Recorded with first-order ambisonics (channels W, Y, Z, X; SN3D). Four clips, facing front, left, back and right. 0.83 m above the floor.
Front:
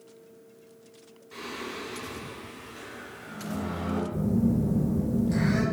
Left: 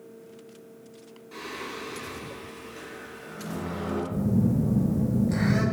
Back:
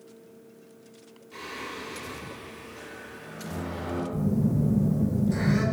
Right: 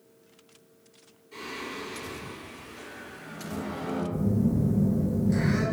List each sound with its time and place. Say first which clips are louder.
1.3 s singing: even, even; 55° left, 1.9 m
4.1 s a phone buzzing: left 2 dB, even; 80° left, 1.1 m